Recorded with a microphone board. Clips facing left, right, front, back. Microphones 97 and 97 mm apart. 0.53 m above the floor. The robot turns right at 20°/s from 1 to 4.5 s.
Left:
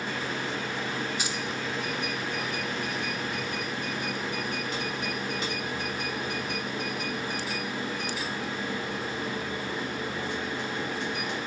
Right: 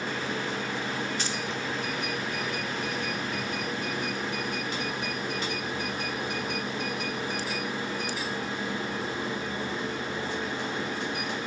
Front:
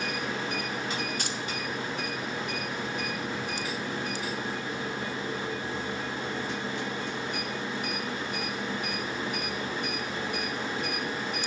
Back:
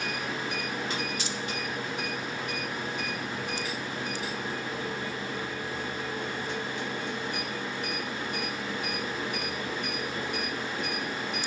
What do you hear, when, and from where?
1.2 s keys jangling: 15° left, 0.6 m